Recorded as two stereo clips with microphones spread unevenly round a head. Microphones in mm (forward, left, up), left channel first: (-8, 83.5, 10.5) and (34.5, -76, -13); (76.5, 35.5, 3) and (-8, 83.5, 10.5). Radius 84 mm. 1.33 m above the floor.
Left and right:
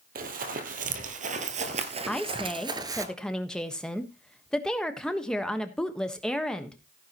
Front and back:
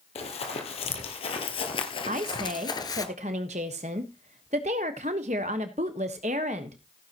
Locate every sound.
0.1 s running footsteps: 40° right, 2.5 m; by 3.1 s 5° right, 1.5 m
2.1 s a woman speaking: 170° right, 1.2 m